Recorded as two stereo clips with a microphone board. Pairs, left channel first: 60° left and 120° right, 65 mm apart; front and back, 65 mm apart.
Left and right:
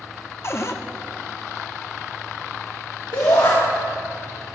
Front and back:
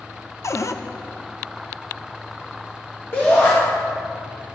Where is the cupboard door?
25° left, 0.6 m.